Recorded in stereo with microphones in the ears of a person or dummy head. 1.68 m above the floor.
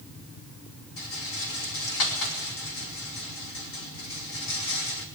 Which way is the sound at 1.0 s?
80° left.